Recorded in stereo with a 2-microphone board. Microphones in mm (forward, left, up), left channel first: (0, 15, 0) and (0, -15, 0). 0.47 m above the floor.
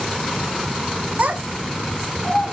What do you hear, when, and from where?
1.2 s a child speaking: 65° right (ahead or behind), 1.0 m; by 2.5 s 45° left (ahead or behind), 1.1 m